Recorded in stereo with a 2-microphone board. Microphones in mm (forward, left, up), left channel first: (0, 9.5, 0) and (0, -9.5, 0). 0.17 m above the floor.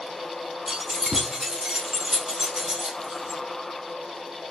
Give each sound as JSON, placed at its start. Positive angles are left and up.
{"t": 0.7, "sound": "keys jangling", "side_deg": -25, "distance_m": 0.8}